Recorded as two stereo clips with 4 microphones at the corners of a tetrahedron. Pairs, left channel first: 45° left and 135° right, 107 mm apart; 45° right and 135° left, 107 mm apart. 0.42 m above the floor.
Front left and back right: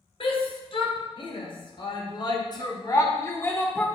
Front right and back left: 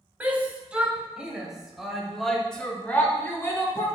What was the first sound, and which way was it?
A shout, 60° left.